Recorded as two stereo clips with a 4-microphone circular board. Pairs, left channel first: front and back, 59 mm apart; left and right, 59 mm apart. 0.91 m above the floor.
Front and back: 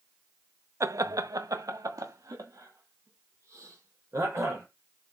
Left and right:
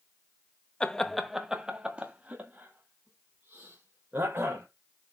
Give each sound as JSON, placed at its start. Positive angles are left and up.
{"t": 0.8, "sound": "laughter", "azimuth_deg": 160, "distance_m": 0.7}